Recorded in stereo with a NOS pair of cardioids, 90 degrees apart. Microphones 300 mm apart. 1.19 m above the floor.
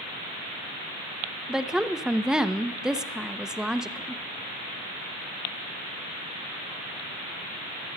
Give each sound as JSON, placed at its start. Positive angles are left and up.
{"t": 1.5, "sound": "a woman speaking", "azimuth_deg": 0, "distance_m": 0.6}